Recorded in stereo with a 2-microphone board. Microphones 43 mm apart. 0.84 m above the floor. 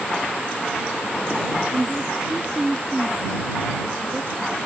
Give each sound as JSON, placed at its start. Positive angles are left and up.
{"t": 1.7, "sound": "a woman speaking", "side_deg": -10}